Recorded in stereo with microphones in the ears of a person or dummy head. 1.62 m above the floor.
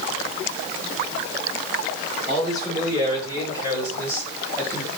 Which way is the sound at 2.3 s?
30° left (ahead or behind).